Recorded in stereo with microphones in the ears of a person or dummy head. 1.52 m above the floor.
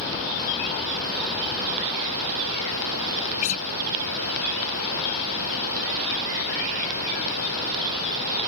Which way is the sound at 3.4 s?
45° left (ahead or behind).